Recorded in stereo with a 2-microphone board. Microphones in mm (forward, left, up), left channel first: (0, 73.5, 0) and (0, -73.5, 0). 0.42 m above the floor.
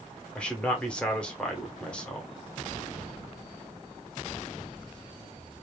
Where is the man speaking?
10° left (ahead or behind), 0.8 m.